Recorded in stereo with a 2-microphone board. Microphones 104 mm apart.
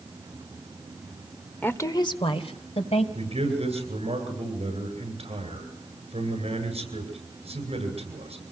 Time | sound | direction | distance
1.6 | a woman speaking | 15° left (ahead or behind) | 1.2 m
3.1 | a man speaking | 65° right (ahead or behind) | 9 m